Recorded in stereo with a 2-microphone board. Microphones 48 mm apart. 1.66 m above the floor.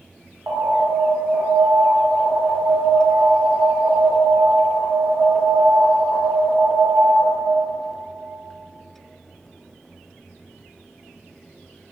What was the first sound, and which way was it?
An alarm, 55° right (ahead or behind).